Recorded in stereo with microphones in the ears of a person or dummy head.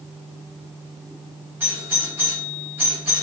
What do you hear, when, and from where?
1.6 s a doorbell: 10° right (ahead or behind), 3 m